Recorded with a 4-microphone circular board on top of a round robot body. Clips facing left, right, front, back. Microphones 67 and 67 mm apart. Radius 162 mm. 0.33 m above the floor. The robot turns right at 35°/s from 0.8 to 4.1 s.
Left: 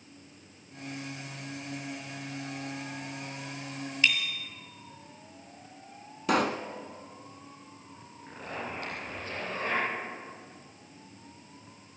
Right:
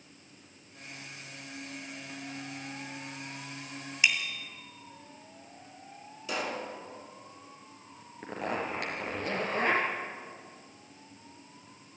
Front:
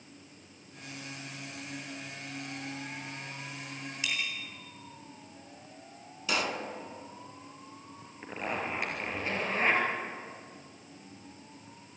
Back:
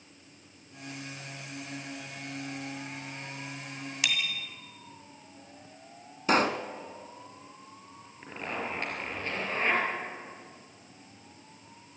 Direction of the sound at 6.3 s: 130° left.